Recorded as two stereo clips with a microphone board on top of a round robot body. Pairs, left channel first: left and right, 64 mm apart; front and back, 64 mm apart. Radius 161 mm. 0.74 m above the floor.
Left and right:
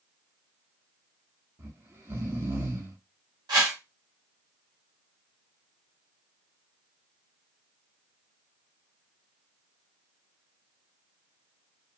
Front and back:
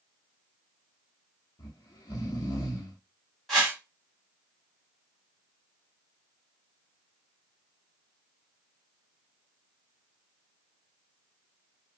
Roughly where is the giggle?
No giggle in this recording.